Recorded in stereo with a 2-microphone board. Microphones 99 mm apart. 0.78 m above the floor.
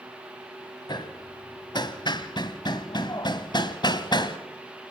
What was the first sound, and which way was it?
Hammering, 50° left (ahead or behind).